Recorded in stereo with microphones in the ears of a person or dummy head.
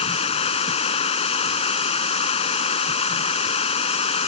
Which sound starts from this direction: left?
Running water, at 0.0 s.